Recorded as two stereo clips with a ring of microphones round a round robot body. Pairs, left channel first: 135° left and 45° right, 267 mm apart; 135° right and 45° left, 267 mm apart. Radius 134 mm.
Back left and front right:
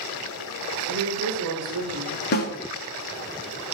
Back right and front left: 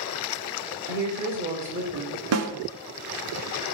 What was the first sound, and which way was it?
A woman speaking, straight ahead.